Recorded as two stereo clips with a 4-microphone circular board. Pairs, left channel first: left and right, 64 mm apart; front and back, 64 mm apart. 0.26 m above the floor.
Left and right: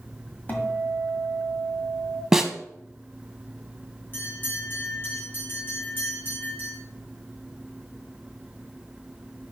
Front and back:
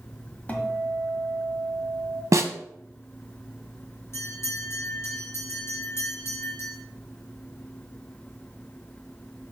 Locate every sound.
0.5 s a guitar: 50° left, 1.4 m
2.3 s a snare drum: 170° right, 0.8 m
4.1 s a bell: 40° left, 3.5 m